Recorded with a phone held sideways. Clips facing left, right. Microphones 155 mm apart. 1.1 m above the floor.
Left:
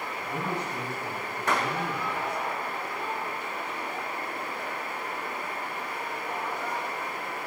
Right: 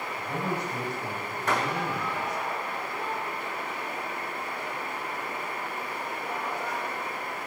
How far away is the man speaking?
About 6.5 m.